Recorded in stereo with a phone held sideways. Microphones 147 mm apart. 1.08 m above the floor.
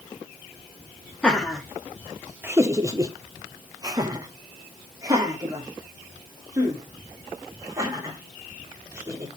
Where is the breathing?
I don't hear breathing.